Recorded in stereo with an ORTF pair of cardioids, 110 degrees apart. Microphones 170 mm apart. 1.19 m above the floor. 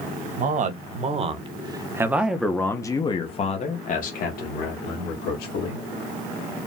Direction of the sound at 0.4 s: 50° right.